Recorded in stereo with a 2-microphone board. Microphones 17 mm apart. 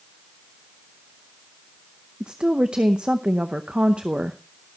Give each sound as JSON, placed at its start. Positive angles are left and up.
{"t": 2.2, "sound": "a woman speaking", "side_deg": -65, "distance_m": 0.7}